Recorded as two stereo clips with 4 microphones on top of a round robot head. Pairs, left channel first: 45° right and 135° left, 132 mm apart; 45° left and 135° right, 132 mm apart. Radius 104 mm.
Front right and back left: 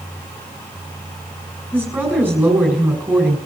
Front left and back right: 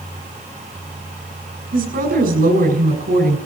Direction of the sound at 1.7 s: 145° right.